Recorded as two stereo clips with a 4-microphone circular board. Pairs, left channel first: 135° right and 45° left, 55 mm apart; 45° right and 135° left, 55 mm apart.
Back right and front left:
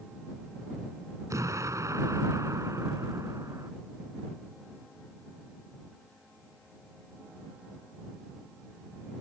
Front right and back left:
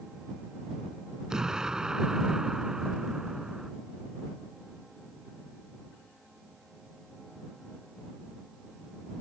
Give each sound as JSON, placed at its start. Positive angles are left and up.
{"t": 1.3, "sound": "an explosion", "azimuth_deg": 55}